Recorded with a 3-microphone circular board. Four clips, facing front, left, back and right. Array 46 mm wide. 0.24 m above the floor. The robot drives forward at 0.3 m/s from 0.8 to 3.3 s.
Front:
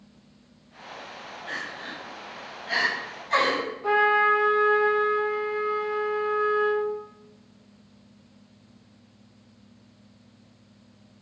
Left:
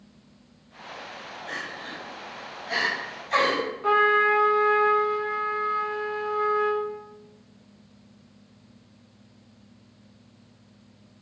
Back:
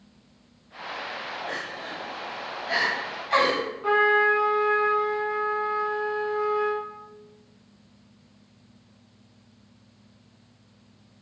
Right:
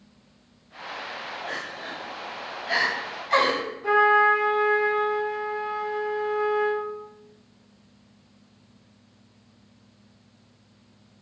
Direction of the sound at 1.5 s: 70° right.